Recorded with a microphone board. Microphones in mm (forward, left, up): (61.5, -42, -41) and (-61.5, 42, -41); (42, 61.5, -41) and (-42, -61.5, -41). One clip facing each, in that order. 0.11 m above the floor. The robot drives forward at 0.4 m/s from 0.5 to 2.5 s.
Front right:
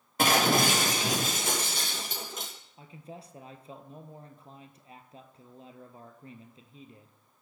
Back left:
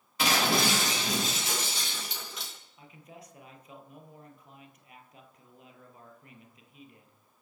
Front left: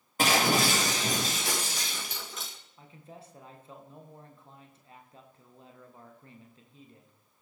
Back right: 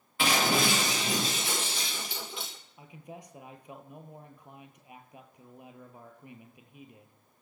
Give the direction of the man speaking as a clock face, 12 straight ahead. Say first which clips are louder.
Front right 5 dB, back right 3 dB; 2 o'clock.